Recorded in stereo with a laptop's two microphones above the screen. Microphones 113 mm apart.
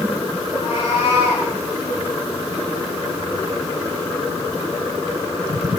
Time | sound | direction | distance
0.5 | a cat meowing | 40° left (ahead or behind) | 5 m